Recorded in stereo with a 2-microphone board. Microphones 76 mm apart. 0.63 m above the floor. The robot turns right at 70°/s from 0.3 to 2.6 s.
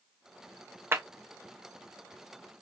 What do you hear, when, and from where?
0.9 s a clap: 30° right (ahead or behind), 0.9 m; by 1.0 s 40° right (ahead or behind), 0.9 m